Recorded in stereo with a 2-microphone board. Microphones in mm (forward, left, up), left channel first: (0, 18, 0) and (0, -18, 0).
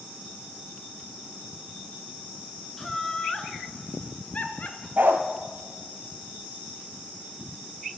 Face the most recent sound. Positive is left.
turn(degrees=-70)  # may be behind; listen again after turning